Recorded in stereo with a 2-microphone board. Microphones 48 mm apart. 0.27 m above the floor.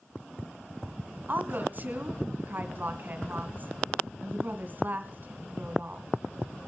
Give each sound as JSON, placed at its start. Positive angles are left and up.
{"t": 1.3, "sound": "a woman speaking", "side_deg": -40, "distance_m": 2.0}